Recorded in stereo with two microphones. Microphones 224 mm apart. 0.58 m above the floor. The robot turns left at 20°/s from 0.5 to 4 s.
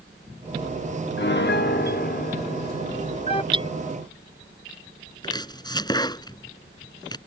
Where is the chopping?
20° left (ahead or behind).